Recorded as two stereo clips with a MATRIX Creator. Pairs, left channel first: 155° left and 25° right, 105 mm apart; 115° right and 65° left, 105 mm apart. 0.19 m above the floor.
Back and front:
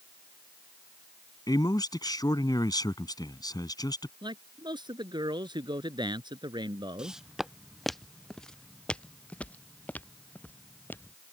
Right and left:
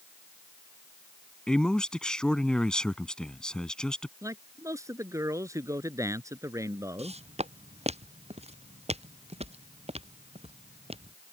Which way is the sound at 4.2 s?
10° left.